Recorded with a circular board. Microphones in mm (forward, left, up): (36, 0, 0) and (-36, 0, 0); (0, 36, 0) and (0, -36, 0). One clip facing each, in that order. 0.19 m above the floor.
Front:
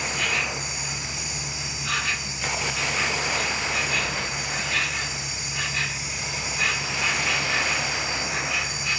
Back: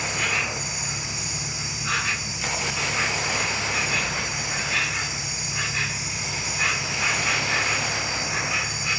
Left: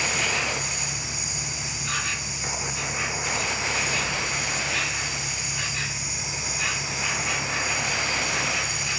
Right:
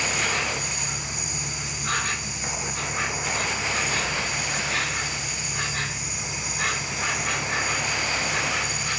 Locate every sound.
0.0 s an insect: 115° right, 1.2 m